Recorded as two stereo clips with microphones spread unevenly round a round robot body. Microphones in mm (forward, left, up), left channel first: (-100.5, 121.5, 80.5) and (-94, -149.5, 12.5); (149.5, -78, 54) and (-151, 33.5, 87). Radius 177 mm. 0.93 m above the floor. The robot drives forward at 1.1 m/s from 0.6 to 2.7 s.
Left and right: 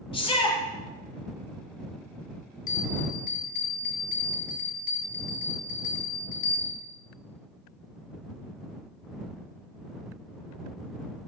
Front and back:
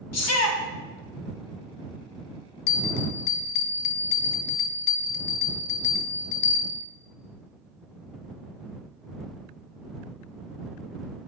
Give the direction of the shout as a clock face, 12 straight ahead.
12 o'clock.